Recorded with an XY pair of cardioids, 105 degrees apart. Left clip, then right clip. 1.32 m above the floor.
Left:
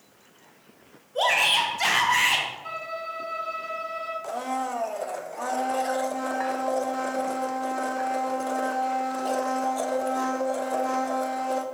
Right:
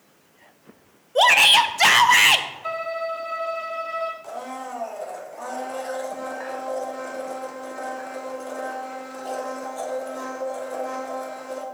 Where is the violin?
65° right, 1.7 m.